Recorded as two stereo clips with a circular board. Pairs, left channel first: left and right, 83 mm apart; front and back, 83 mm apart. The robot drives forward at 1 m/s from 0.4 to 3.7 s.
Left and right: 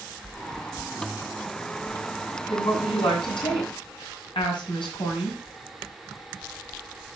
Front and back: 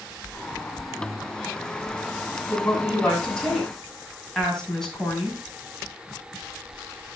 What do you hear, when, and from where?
2.5 s a woman speaking: 70° left, 6 m; by 5.4 s 85° left, 6 m